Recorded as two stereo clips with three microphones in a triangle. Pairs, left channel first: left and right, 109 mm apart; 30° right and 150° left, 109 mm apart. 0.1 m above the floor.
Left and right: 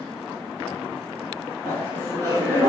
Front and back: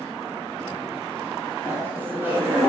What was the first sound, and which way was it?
Laughter, 110° left.